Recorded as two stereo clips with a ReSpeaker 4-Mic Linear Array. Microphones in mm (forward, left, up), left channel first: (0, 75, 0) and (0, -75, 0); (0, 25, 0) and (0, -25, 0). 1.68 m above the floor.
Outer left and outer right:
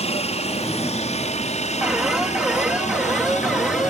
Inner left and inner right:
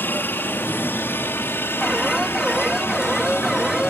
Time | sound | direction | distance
0.0 | a helicopter | 45° left (ahead or behind) | ?
1.8 | an alarm | 5° right (ahead or behind) | ?